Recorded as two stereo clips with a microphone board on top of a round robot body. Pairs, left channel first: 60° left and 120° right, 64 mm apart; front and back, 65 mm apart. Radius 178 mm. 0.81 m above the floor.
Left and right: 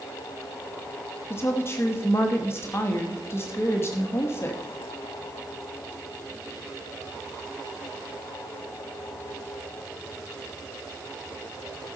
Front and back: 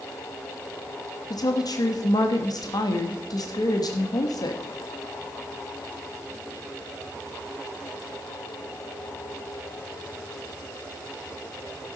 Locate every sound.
1.3 s a woman speaking: 10° left, 1.3 m